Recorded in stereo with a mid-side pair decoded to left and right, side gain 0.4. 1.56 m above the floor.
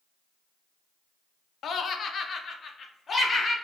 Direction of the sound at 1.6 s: 65° left.